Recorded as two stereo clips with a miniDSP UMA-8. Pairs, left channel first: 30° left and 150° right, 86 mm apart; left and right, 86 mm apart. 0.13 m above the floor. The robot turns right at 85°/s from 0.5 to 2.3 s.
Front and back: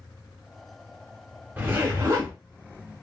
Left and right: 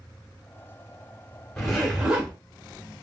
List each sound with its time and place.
1.6 s a zipper: 165° left, 1.8 m; by 2.3 s 130° right, 1.8 m